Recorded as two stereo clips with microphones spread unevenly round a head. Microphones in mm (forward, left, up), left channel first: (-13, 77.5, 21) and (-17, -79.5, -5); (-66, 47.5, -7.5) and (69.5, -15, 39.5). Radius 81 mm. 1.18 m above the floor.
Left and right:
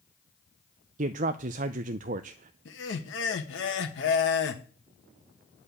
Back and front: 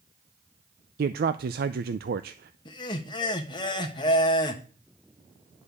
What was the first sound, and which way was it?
A man speaking, 60° right.